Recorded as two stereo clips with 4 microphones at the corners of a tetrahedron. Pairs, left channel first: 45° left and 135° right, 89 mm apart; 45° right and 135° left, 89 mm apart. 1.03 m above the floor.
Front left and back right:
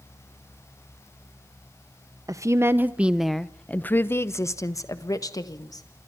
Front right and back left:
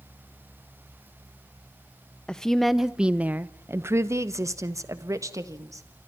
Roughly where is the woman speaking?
Behind right.